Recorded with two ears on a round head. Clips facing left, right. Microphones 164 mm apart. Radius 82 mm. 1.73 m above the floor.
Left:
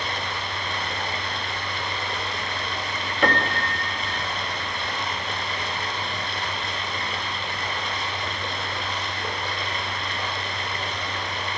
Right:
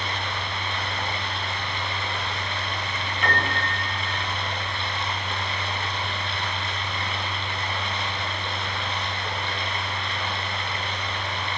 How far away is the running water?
About 8.5 m.